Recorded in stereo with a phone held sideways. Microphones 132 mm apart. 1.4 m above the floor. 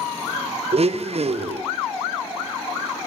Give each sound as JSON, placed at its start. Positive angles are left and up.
{"t": 0.7, "sound": "a blender", "side_deg": -55, "distance_m": 0.6}